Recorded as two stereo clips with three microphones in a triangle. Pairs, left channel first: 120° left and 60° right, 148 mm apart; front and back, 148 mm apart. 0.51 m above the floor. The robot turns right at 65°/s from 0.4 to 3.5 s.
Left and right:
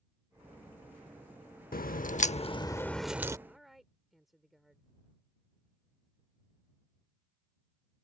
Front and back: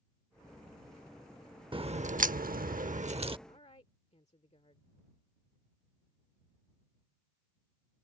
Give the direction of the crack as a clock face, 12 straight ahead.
8 o'clock.